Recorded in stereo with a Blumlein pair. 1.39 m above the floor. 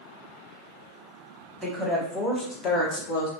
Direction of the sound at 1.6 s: 5° left.